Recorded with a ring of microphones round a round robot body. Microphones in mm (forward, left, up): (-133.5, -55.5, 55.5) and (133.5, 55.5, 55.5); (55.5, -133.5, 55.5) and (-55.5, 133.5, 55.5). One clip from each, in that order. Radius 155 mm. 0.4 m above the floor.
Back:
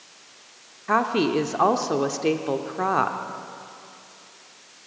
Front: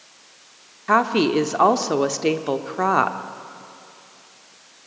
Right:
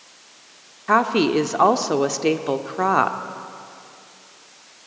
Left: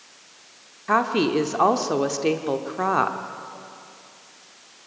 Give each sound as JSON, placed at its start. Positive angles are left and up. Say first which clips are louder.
{"t": 0.9, "sound": "a woman speaking", "louder": "front 4 dB, right 3 dB", "azimuth_deg": 0, "distance_m": 0.9}